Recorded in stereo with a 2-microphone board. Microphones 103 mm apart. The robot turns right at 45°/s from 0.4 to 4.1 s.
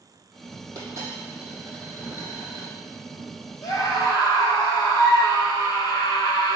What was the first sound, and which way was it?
A dropped coin, 35° right.